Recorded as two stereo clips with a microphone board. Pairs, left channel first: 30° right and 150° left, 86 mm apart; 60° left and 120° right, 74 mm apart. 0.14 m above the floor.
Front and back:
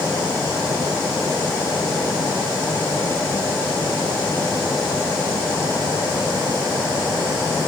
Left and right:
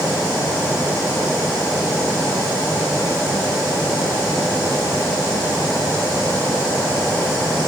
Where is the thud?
No thud in this recording.